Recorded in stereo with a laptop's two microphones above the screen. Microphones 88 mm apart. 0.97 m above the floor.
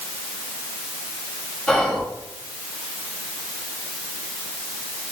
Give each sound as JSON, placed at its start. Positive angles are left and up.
{"t": 1.7, "sound": "whispering", "side_deg": 10, "distance_m": 1.3}